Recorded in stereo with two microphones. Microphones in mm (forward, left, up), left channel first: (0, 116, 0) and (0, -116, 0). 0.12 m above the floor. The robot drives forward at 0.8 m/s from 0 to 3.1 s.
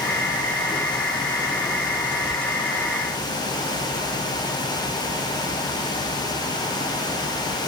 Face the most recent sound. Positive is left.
No sound to turn to.